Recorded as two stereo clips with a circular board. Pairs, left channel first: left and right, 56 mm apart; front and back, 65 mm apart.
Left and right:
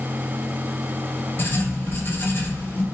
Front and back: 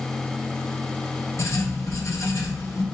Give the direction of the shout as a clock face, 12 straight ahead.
I don't hear a shout.